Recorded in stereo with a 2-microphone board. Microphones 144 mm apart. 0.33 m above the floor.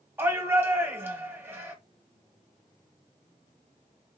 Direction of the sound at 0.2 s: 15° right (ahead or behind).